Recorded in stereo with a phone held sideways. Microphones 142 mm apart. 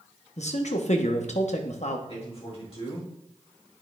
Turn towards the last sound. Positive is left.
turn(degrees=45)  # may be behind; listen again after turning